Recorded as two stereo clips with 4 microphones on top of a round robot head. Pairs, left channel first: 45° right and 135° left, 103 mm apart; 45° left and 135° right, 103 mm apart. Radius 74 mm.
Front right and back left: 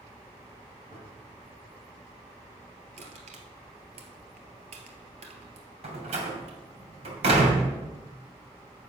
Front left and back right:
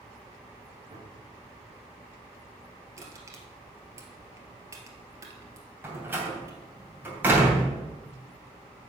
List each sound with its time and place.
0.9 s a gunshot: 175° right, 3 m
3.0 s crushing: 160° left, 1.6 m
5.8 s a door slam: 155° left, 2.5 m